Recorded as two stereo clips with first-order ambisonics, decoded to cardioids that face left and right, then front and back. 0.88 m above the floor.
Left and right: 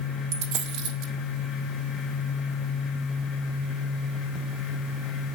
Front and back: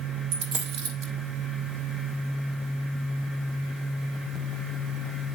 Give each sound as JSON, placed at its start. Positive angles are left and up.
{"t": 0.3, "sound": "a dropped coin", "azimuth_deg": -140, "distance_m": 3.5}